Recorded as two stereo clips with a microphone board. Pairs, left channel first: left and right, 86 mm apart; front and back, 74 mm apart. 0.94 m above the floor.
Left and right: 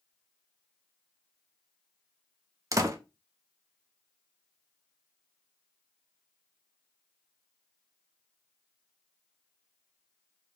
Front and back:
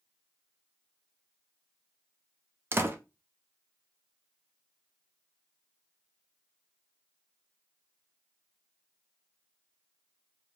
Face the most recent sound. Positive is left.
turn(degrees=-130)